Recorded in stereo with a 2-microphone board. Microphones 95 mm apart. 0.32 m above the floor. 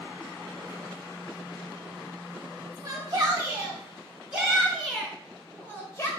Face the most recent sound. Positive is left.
turn(degrees=30)  # may be behind; listen again after turning